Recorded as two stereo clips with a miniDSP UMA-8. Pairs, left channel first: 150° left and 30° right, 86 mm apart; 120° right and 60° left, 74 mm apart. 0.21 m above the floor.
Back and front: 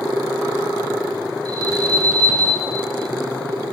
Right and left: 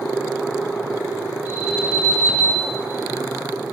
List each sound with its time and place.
1.4 s an alarm: 5° right, 2.5 m